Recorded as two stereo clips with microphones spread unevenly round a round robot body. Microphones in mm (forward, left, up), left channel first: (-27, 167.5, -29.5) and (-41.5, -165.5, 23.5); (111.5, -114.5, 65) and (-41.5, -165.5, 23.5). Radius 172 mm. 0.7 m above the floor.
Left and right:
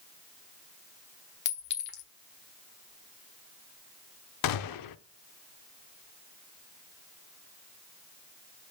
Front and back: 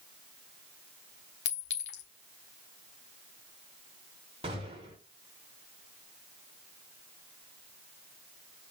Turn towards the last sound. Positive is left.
turn(degrees=120)